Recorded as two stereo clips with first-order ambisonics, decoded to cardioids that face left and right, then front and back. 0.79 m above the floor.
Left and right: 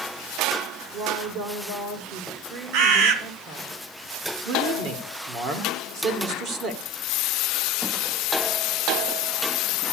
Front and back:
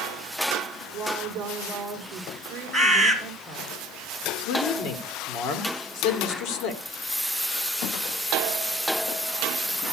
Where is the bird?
85° right, 2 m.